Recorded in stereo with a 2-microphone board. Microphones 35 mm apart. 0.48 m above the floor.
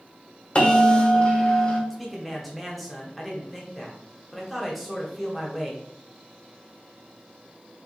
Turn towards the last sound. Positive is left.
turn(degrees=0)  # may be behind; listen again after turning